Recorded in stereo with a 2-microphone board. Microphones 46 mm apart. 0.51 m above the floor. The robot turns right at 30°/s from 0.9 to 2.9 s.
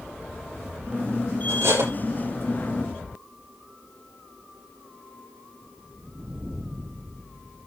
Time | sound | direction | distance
1.5 | cutlery clinking | 70° right (ahead or behind) | 7 m